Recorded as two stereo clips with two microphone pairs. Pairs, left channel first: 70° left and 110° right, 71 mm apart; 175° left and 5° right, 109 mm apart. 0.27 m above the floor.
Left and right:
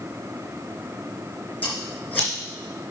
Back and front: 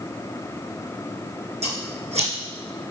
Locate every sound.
1.6 s scissors: straight ahead, 2.5 m